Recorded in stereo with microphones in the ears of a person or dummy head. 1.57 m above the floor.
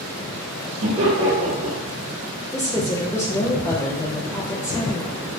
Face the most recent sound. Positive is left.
turn(degrees=15)  # may be behind; listen again after turning